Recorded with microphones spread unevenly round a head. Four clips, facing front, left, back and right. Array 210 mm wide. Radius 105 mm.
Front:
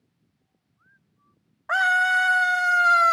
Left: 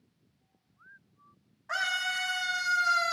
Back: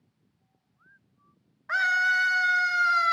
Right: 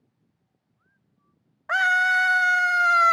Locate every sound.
1.7 s a scream: 55° right, 0.6 m